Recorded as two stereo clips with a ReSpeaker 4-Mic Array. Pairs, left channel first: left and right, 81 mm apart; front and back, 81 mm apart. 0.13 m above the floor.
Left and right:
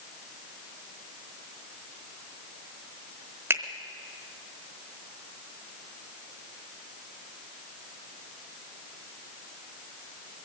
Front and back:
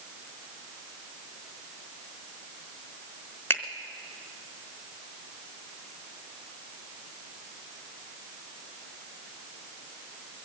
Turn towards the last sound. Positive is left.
turn(degrees=-50)